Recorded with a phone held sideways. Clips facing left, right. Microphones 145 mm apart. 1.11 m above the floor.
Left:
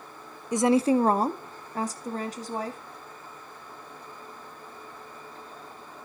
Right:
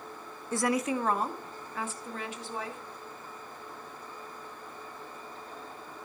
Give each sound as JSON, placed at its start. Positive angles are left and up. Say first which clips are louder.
{"t": 0.5, "sound": "a woman speaking", "louder": "left 8 dB", "side_deg": 15, "distance_m": 0.5}